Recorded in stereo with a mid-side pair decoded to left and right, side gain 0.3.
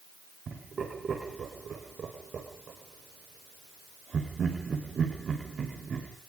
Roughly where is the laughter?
Ahead right.